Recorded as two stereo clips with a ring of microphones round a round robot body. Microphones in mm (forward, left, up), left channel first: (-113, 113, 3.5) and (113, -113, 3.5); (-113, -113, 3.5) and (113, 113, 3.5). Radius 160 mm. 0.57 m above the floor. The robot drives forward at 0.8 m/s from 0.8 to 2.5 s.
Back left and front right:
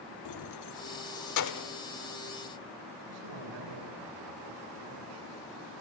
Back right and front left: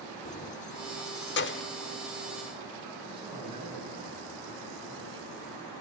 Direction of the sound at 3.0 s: 30° right.